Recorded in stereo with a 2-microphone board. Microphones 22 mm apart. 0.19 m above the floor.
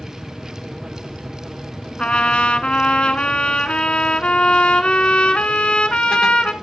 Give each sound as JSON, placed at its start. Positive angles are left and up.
{"t": 2.0, "sound": "a trumpet", "side_deg": 55, "distance_m": 0.8}